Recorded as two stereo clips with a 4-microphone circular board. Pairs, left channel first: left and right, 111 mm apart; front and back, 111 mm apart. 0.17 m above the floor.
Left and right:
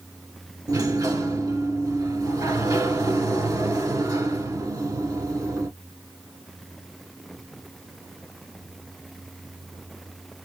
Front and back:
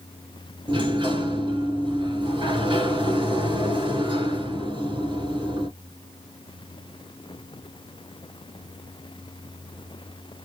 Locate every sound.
0.7 s a sliding door: 145° right, 3 m